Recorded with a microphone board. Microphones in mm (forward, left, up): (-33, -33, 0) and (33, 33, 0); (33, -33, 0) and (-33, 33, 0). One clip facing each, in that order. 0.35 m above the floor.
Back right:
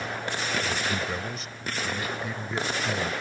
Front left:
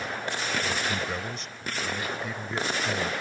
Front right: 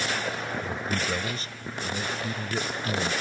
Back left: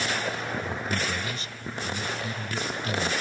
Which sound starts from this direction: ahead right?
A man speaking, at 0.6 s.